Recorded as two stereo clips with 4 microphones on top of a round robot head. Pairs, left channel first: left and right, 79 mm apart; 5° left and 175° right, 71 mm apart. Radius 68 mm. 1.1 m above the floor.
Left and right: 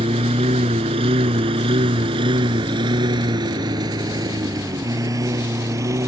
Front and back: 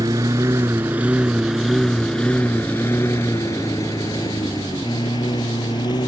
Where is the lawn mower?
120° right; by 6.1 s 40° right.